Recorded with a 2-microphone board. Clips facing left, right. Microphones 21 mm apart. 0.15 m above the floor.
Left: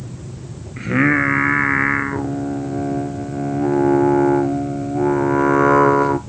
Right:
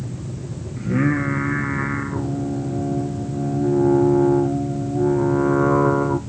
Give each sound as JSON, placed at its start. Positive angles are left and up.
{"t": 0.8, "sound": "singing", "side_deg": 50, "distance_m": 0.7}